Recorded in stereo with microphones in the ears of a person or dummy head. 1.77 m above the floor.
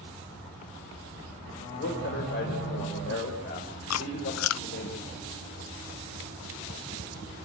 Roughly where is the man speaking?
Left.